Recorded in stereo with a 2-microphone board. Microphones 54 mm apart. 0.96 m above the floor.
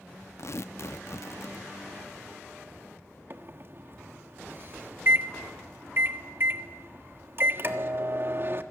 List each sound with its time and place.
0.4 s tearing paper: 60° left (ahead or behind), 0.5 m
3.3 s a microwave: 45° right (ahead or behind), 1.2 m